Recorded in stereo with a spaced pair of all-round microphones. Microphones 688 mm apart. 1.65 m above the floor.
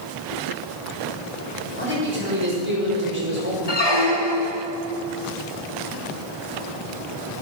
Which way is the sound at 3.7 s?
35° left (ahead or behind).